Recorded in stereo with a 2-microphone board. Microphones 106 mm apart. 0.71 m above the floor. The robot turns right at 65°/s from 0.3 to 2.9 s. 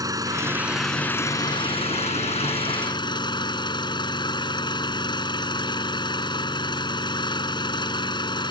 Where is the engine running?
35° right; by 8.5 s 135° left.